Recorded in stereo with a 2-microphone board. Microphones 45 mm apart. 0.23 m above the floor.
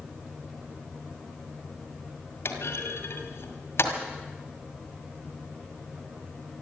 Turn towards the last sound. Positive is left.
turn(degrees=65)  # may be behind; listen again after turning